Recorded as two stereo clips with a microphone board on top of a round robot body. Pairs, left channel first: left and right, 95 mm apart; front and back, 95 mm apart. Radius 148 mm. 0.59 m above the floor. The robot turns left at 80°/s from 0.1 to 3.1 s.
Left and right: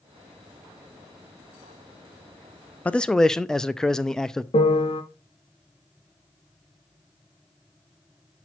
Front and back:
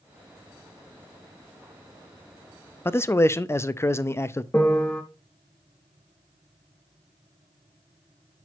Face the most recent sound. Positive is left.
turn(degrees=75)